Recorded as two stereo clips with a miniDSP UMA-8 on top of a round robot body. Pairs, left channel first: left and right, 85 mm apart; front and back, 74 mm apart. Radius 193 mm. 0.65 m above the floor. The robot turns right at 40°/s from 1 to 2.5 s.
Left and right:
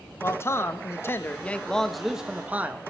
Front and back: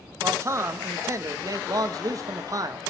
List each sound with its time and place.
0.2 s a man speaking: 140° left, 1.1 m; by 2.8 s 160° right, 1.1 m